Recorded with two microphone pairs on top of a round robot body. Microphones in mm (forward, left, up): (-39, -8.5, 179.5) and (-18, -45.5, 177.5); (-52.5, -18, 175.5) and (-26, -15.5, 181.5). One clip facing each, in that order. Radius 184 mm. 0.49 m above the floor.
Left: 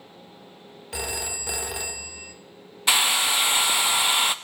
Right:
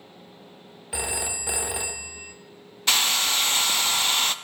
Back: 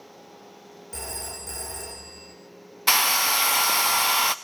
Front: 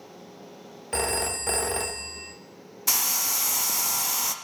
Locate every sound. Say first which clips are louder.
0.9 s a phone ringing: right 1 dB, front 9 dB; 15° left, 0.9 m
2.9 s a hair dryer: left 2 dB, back 7 dB; 160° right, 0.5 m